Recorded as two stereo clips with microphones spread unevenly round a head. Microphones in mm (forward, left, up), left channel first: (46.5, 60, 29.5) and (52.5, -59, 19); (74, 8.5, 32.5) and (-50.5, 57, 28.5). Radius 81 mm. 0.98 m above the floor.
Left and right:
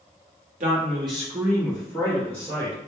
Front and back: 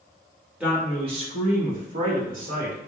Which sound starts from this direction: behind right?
A man speaking, at 0.6 s.